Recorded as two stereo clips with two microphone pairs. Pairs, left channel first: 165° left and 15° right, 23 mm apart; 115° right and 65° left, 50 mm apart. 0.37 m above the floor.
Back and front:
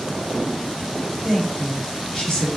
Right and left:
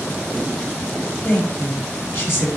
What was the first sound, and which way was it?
A woman speaking, 135° right.